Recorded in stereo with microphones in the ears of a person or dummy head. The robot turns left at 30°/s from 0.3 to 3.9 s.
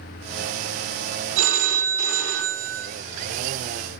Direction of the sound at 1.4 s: 75° right.